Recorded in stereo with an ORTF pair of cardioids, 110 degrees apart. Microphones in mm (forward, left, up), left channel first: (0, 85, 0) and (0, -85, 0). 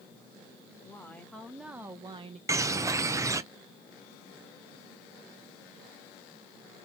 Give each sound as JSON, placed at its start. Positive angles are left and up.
{"t": 0.7, "sound": "a woman speaking", "azimuth_deg": 20, "distance_m": 1.9}
{"t": 2.5, "sound": "a bird", "azimuth_deg": -15, "distance_m": 0.7}